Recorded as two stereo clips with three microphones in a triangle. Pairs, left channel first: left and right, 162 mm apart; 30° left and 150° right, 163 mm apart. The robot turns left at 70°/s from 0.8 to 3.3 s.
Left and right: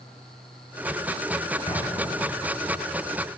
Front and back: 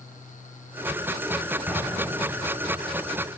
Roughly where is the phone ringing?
No phone ringing in this recording.